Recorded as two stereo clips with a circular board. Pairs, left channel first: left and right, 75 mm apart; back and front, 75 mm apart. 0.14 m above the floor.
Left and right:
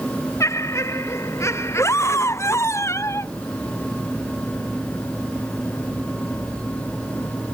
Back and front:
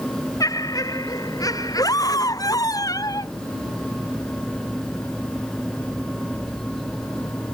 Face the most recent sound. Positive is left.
turn(degrees=140)